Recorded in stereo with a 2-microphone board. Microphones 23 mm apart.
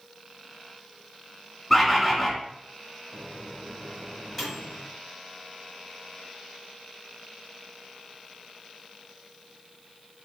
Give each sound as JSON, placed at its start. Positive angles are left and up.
{"t": 1.7, "sound": "a bird", "side_deg": 0, "distance_m": 1.3}
{"t": 3.1, "sound": "a microwave", "side_deg": 5, "distance_m": 2.5}